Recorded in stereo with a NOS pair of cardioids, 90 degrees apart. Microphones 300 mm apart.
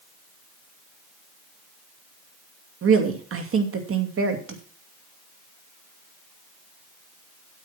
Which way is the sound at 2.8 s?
50° right.